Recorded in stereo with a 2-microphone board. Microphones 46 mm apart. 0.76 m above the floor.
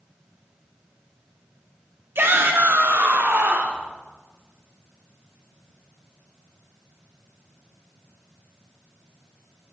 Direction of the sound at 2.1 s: 55° right (ahead or behind).